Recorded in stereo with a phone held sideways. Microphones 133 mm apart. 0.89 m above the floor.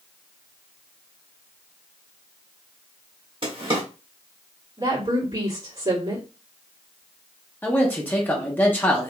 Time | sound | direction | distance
3.4 | a drawer | 40° right (ahead or behind) | 1.4 m
4.8 | a woman speaking | 40° right (ahead or behind) | 2.5 m
7.6 | a man speaking | 15° left (ahead or behind) | 0.9 m